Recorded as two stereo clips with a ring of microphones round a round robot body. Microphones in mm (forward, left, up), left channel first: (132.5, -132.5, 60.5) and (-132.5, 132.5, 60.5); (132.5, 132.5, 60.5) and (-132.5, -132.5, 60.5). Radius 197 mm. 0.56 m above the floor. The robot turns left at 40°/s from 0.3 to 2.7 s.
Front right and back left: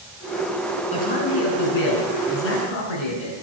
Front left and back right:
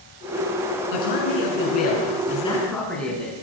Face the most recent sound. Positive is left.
turn(degrees=-40)